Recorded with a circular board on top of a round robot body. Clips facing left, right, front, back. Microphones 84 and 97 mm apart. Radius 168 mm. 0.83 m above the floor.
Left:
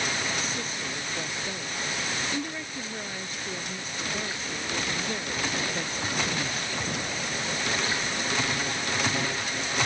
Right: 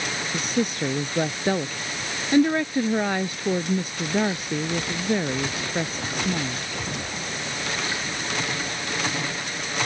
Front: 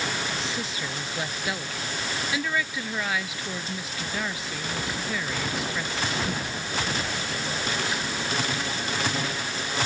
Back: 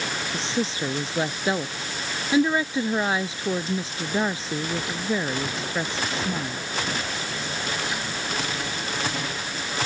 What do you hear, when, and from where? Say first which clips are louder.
0.3 s a woman speaking: right 8 dB, back 5 dB; 120° right